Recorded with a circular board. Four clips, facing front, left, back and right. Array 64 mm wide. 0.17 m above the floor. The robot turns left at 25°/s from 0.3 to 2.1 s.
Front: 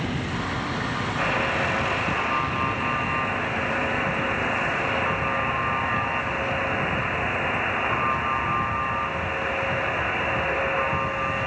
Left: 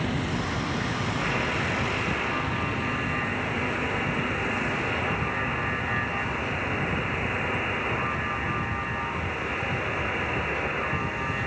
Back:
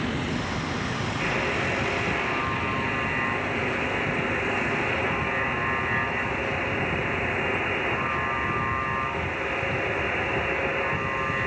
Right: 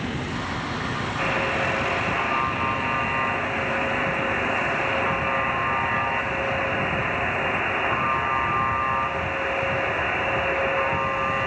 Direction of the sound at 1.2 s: 25° right.